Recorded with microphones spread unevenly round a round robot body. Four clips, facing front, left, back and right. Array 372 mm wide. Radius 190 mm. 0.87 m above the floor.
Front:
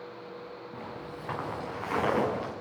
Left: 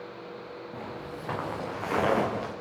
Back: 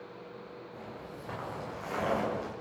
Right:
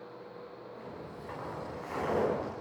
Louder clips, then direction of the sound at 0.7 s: Left 6 dB, front 4 dB; 60° left.